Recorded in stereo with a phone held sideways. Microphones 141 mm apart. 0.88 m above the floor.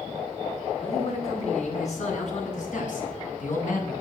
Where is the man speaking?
50° left (ahead or behind), 7.5 m; by 3.9 s 75° left (ahead or behind), 7.5 m.